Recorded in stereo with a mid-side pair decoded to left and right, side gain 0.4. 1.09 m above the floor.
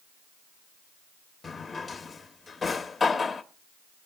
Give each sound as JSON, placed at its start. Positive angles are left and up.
{"t": 1.4, "sound": "a drawer", "azimuth_deg": 35, "distance_m": 1.2}